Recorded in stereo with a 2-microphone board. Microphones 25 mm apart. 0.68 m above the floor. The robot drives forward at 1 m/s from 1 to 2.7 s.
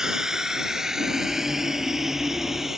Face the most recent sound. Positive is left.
turn(degrees=-15)  # may be behind; listen again after turning